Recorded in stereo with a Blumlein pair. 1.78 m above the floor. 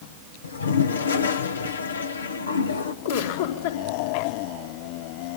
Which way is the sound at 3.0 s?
65° left.